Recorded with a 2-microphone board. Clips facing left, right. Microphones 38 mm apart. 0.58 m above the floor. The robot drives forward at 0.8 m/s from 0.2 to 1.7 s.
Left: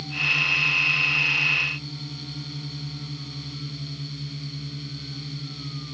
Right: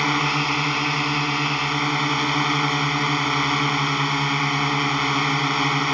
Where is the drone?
75° right (ahead or behind).